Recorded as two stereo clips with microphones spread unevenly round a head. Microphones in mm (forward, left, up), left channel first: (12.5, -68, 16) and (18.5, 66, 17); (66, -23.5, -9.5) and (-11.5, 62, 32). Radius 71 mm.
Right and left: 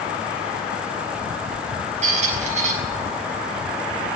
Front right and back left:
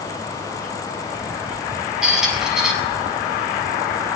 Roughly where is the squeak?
Ahead left.